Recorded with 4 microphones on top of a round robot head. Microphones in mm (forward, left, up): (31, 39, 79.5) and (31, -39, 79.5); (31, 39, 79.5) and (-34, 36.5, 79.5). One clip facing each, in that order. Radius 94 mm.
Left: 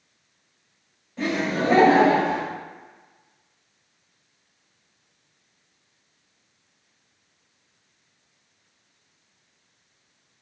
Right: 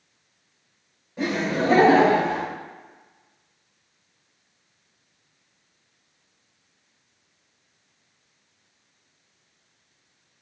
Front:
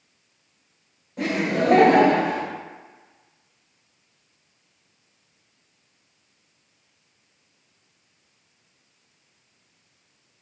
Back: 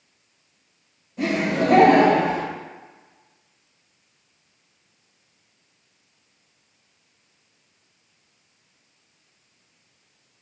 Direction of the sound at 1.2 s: 15° right.